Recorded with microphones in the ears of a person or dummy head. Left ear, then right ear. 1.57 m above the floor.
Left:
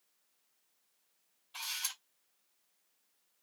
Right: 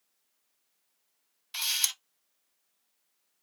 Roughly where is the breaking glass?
No breaking glass in this recording.